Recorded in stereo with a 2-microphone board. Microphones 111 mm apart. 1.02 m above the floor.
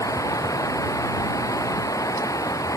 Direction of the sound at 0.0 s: 30° left (ahead or behind).